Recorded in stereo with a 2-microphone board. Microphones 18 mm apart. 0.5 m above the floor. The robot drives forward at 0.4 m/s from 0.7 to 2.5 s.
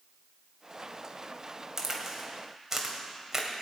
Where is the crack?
20° right (ahead or behind), 2.5 m; by 3.6 s 25° right (ahead or behind), 2 m.